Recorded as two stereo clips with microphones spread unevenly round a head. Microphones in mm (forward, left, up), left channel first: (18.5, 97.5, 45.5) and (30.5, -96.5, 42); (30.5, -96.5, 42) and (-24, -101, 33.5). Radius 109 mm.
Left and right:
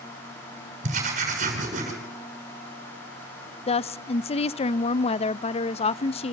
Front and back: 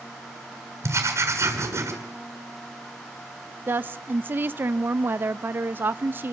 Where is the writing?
145° right, 7 m.